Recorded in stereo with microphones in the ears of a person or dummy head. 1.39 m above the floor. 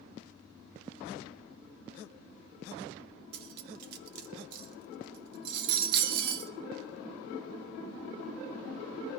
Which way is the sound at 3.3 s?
55° right (ahead or behind).